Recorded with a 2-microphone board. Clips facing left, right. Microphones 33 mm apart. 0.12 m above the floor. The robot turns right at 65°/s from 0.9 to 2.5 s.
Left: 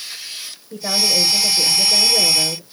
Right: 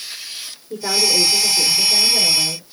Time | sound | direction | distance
0.7 | a woman speaking | 60° right | 6 m